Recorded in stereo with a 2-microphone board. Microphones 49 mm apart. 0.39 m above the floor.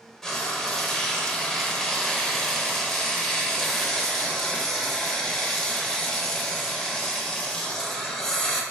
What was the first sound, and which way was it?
Frying, 10° left (ahead or behind).